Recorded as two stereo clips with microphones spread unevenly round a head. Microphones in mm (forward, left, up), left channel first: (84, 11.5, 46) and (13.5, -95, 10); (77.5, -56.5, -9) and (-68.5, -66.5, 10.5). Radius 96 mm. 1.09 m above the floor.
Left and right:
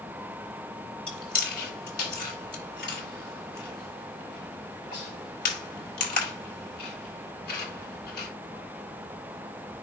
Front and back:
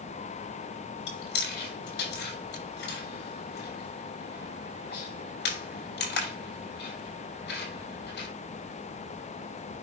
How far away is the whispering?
I don't hear whispering.